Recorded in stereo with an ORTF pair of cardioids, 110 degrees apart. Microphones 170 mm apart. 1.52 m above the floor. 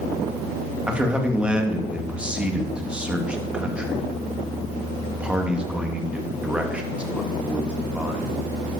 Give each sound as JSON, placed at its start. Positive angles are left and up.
{"t": 0.9, "sound": "a man speaking", "azimuth_deg": -5, "distance_m": 3.0}